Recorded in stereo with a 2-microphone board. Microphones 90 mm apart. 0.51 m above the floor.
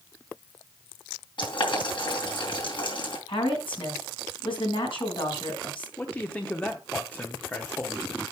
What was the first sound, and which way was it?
Boiling, 65° left (ahead or behind).